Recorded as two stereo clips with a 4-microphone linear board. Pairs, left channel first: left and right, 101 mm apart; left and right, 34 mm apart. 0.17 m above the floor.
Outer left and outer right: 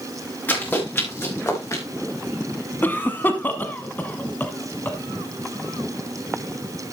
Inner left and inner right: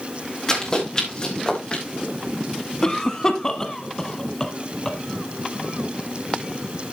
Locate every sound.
0.5 s running footsteps: 20° left (ahead or behind), 6.5 m; by 1.8 s 30° left (ahead or behind), 5 m
2.8 s a cough: 20° left (ahead or behind), 1.0 m